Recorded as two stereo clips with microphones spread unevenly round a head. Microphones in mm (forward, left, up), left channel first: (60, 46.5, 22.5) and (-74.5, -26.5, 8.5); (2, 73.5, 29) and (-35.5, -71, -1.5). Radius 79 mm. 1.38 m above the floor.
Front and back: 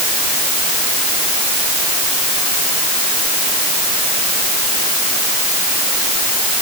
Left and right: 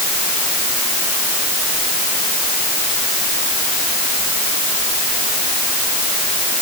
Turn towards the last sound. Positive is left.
No sound to turn to.